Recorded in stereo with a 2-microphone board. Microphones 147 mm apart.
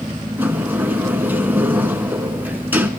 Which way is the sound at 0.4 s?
10° right (ahead or behind).